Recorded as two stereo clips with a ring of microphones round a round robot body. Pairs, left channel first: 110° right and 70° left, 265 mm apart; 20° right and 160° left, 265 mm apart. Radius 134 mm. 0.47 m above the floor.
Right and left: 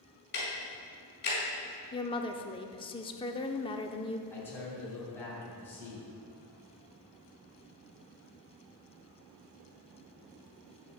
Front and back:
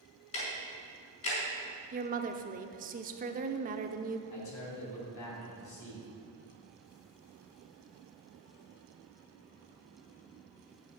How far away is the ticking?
About 4 m.